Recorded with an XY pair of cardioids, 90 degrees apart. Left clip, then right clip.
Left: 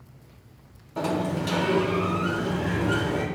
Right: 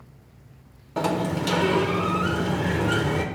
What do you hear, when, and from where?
1.0 s a sliding door: 50° right, 1.1 m